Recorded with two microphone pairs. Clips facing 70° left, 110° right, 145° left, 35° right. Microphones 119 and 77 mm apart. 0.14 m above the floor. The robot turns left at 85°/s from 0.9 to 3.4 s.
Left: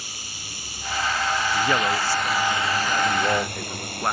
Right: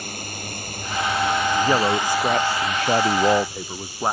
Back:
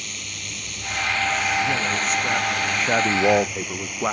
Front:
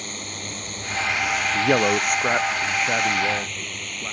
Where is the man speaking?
25° right; by 4.1 s straight behind.